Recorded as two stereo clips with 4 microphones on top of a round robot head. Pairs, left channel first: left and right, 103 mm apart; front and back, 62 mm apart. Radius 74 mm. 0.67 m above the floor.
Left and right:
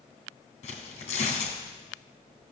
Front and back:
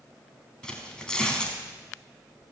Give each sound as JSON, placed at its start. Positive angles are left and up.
{"t": 0.6, "sound": "tearing paper", "azimuth_deg": 80, "distance_m": 3.0}